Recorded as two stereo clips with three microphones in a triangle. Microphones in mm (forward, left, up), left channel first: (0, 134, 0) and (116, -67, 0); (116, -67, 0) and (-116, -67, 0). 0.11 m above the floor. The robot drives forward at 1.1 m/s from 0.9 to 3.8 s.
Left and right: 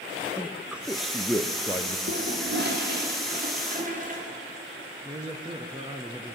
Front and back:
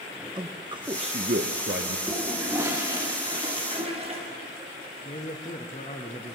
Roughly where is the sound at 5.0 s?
Ahead.